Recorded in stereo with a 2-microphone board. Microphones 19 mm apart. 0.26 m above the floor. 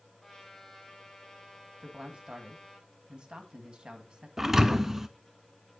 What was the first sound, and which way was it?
A trumpet, 10° left (ahead or behind).